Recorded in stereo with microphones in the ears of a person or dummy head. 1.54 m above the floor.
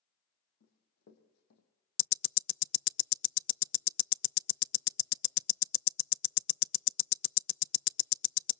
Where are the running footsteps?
60° left (ahead or behind), 3 m.